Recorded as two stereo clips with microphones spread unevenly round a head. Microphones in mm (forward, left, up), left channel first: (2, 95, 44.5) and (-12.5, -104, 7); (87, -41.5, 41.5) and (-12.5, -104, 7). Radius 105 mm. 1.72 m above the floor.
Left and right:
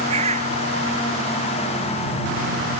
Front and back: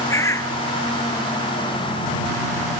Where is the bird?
30° right.